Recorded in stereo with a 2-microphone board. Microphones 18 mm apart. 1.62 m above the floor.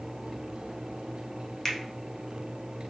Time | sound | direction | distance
1.6 | a finger snap | 20° left (ahead or behind) | 0.7 m